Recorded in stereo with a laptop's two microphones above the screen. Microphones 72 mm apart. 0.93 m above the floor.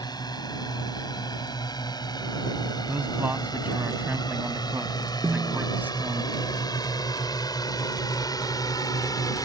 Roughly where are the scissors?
No scissors in this recording.